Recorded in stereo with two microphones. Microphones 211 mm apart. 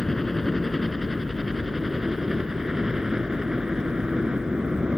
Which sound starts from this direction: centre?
A helicopter, at 0.0 s.